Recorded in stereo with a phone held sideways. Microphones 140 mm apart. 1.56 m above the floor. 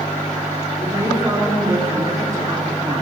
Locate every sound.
0.8 s a woman speaking: 25° right (ahead or behind), 3.5 m